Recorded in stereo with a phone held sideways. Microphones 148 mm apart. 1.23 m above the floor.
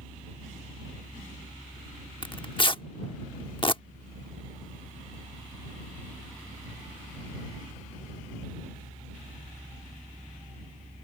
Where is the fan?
75° right (ahead or behind).